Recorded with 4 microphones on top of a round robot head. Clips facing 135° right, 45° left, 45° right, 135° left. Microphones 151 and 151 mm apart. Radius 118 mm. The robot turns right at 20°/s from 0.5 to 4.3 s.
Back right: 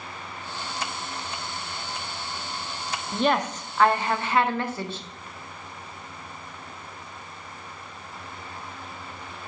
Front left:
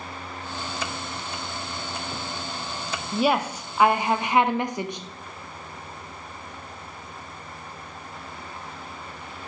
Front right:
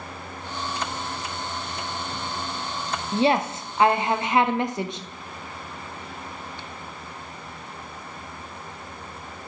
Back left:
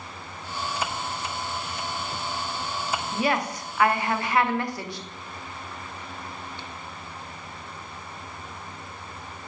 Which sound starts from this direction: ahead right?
A woman speaking, at 3.1 s.